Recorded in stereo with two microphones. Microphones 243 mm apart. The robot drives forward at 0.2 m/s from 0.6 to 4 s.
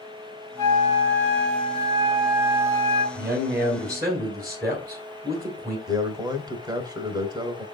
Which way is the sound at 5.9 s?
15° right (ahead or behind).